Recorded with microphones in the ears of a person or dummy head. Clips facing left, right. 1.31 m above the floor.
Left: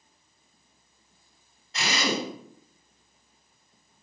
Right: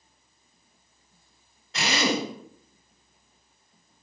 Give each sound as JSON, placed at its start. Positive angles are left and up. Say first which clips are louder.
{"t": 1.7, "sound": "a drill", "louder": "right 3 dB", "side_deg": -60, "distance_m": 8.5}